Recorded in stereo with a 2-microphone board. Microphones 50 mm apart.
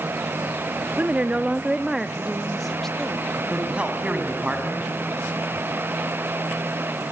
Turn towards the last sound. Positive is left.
turn(degrees=-25)  # may be behind; listen again after turning